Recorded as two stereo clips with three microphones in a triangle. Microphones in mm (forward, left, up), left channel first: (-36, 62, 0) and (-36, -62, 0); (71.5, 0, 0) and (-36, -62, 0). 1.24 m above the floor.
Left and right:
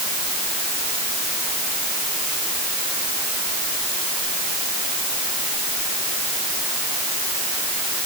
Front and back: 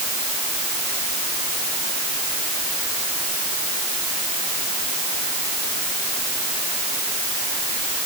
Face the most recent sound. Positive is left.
No sound to turn to.